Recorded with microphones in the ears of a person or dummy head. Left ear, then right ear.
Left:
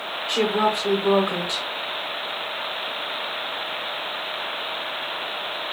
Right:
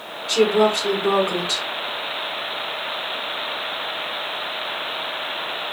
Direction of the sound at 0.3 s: 15° right (ahead or behind).